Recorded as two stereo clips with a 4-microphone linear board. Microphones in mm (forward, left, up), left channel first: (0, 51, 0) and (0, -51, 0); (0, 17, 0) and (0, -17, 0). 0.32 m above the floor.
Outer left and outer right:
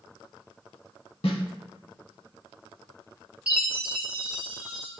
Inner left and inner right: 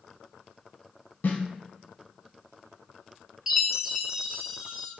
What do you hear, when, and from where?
1.2 s a snare drum: 75° left (ahead or behind), 0.5 m
3.5 s a chime: 15° right (ahead or behind), 0.6 m